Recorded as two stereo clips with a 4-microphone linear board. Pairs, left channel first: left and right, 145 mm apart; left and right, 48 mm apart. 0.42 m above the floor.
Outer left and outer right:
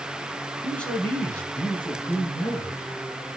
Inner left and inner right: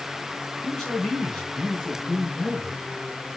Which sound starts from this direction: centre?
A man speaking, at 0.6 s.